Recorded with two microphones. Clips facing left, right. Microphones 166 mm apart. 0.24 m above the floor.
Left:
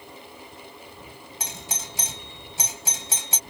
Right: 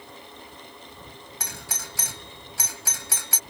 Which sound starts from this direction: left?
A doorbell, at 1.4 s.